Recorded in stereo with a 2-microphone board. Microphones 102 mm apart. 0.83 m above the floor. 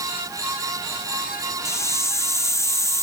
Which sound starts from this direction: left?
A hiss, at 1.6 s.